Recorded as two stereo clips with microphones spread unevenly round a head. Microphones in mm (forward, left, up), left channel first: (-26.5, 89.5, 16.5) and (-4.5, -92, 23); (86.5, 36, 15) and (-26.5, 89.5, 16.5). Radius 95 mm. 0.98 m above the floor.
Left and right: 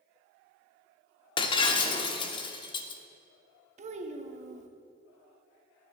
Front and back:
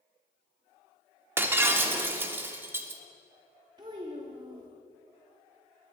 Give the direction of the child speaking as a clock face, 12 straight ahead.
5 o'clock.